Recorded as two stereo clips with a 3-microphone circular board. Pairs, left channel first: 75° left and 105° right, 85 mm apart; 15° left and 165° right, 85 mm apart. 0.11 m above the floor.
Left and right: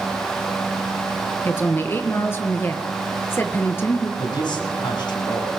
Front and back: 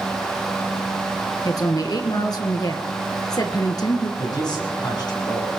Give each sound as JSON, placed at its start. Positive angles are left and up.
{"t": 1.4, "sound": "a woman speaking", "azimuth_deg": 20, "distance_m": 1.6}
{"t": 4.2, "sound": "a man speaking", "azimuth_deg": 50, "distance_m": 6.5}